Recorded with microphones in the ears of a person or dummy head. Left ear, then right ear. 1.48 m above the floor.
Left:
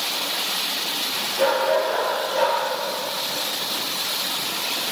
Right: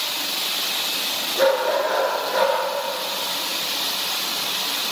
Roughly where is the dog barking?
Right.